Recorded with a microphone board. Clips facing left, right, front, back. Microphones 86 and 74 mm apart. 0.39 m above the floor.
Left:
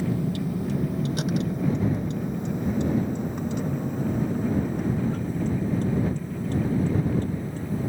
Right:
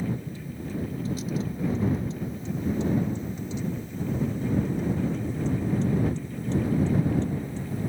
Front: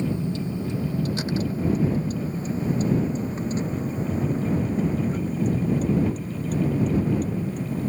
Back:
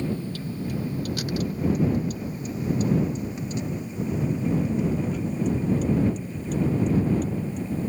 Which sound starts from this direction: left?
A vehicle, at 0.0 s.